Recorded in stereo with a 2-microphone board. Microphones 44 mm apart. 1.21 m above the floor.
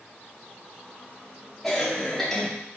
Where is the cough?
5° left (ahead or behind), 3.5 m.